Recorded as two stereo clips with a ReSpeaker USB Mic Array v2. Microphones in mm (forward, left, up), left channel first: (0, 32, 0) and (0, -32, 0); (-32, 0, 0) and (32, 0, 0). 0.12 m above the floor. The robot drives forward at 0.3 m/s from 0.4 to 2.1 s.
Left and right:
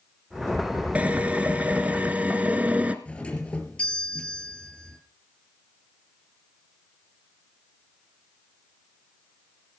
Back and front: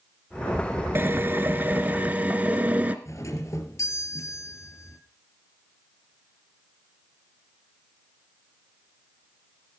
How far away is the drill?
About 1.8 m.